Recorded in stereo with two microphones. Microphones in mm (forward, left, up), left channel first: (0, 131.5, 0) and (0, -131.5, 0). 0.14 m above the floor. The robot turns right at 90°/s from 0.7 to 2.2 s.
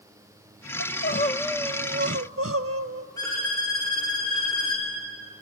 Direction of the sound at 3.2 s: 15° left (ahead or behind).